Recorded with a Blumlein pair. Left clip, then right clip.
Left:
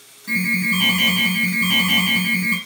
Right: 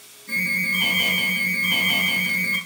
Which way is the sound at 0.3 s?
60° left.